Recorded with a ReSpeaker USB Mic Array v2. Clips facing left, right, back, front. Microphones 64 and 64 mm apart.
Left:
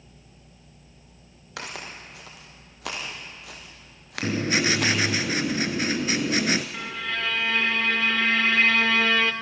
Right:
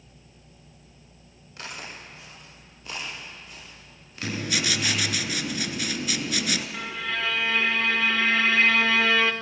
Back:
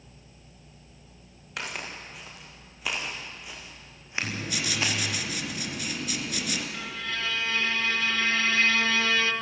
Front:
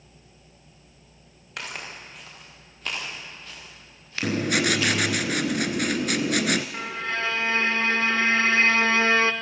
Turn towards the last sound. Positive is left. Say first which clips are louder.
# even, front 5 dB
turn(degrees=0)